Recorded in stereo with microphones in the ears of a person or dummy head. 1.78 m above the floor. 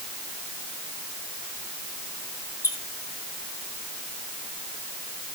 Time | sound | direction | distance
2.6 | a squeak | 25° left (ahead or behind) | 5.5 m